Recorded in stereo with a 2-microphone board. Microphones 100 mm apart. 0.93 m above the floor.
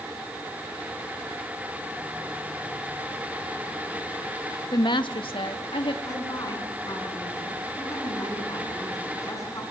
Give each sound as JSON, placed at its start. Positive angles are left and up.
{"t": 4.7, "sound": "a woman speaking", "side_deg": 45, "distance_m": 1.1}
{"t": 6.0, "sound": "a woman speaking", "side_deg": 35, "distance_m": 7.5}